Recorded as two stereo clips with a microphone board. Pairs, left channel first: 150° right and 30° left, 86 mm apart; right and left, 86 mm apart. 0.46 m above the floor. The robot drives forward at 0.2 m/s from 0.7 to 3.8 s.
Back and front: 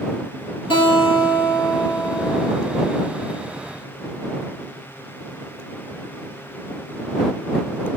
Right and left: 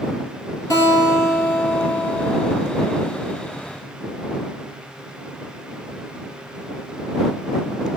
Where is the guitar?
140° right, 4.5 m; by 2.5 s 145° right, 5 m.